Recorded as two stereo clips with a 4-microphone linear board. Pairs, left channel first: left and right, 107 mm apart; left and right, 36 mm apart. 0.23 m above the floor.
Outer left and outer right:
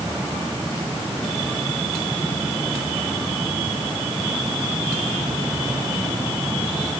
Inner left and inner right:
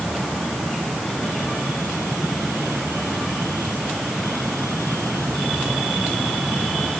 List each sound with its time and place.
Only background noise.